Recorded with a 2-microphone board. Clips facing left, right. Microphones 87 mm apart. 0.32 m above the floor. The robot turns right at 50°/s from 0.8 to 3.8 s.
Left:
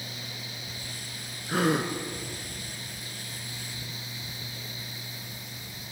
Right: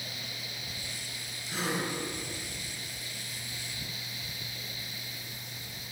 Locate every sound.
1.5 s a gasp: 55° left (ahead or behind), 2 m; by 1.9 s 75° left (ahead or behind), 2 m